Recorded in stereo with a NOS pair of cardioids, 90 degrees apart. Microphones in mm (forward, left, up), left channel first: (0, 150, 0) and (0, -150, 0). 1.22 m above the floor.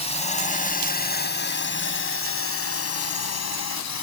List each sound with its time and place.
0.0 s a drone: 20° left; by 4.0 s 60° left